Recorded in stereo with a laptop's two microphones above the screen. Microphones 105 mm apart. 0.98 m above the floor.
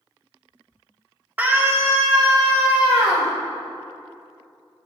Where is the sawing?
I don't hear sawing.